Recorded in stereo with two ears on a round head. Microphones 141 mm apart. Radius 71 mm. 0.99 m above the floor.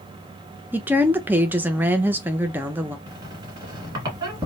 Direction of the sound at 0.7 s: 10° right (ahead or behind).